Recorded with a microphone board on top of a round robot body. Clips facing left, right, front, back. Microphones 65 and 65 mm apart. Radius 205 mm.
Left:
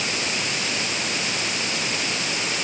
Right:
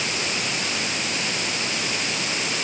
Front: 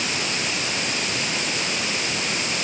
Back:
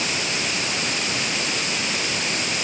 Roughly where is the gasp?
I don't hear a gasp.